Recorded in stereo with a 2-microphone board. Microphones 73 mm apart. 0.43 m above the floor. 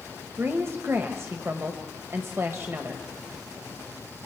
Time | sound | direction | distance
0.4 | a woman speaking | 35° right (ahead or behind) | 1.8 m